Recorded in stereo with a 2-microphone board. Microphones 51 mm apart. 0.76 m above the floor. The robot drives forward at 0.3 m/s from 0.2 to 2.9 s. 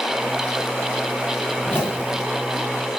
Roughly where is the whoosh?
Left.